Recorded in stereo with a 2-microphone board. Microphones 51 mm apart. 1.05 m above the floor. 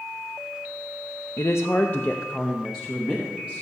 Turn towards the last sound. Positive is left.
turn(degrees=-20)  # may be behind; listen again after turning